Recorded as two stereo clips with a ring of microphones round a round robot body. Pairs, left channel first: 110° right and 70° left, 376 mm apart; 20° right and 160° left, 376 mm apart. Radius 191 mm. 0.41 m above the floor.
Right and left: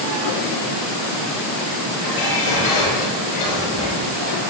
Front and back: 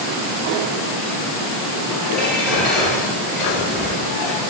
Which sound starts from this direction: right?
Dishes clattering, at 2.0 s.